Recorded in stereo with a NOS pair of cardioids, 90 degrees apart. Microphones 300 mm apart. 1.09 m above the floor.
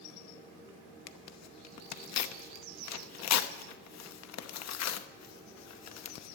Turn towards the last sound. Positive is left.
turn(degrees=65)